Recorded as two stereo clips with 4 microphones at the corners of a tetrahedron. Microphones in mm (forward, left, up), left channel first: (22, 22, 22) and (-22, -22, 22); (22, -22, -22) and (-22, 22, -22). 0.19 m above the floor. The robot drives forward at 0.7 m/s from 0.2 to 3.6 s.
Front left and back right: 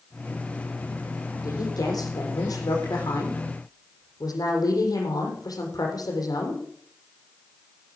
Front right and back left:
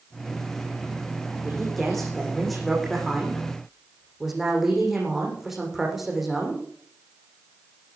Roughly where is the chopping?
I don't hear chopping.